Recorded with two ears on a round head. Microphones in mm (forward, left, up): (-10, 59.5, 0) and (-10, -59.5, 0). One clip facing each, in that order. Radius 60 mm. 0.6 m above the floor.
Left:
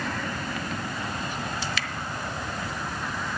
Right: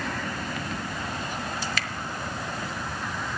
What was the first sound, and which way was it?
Dripping, 40° right (ahead or behind).